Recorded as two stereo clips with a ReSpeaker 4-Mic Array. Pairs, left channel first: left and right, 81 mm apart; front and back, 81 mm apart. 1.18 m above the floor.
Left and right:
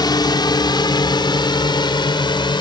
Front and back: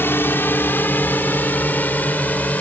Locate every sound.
0.0 s a drone: 60° left; by 2.6 s 70° left